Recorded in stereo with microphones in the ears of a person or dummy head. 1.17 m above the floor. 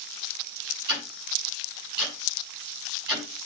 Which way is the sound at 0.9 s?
55° right (ahead or behind).